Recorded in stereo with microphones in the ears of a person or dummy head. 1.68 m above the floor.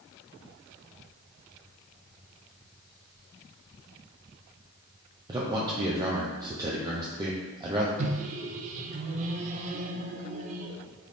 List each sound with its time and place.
5.3 s a man speaking: 20° right (ahead or behind), 0.5 m
8.0 s a microwave: 40° right (ahead or behind), 0.5 m